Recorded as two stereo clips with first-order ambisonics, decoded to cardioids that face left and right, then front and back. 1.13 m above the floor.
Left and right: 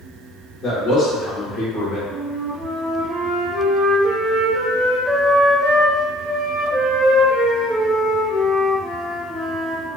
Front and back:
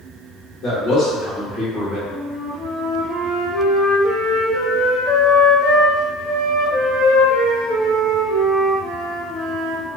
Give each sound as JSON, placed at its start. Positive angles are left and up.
{"t": 0.6, "sound": "a man speaking", "azimuth_deg": 25, "distance_m": 1.1}
{"t": 2.1, "sound": "a flute", "azimuth_deg": -15, "distance_m": 1.1}